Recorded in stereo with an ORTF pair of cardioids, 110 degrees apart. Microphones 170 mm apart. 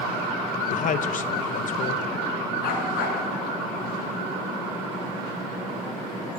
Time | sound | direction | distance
0.7 | a man speaking | 50° left | 1.6 m
2.6 | a dog barking | 70° left | 5.5 m